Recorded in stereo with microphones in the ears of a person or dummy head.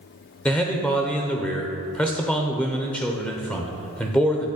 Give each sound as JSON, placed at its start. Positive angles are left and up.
{"t": 0.5, "sound": "a man speaking", "side_deg": 10, "distance_m": 0.6}